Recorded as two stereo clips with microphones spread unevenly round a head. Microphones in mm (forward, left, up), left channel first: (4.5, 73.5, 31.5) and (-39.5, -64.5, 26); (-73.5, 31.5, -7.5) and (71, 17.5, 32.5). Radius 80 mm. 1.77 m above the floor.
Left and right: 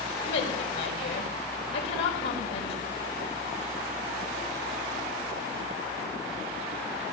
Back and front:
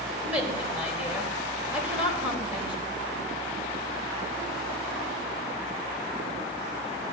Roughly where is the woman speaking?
Left.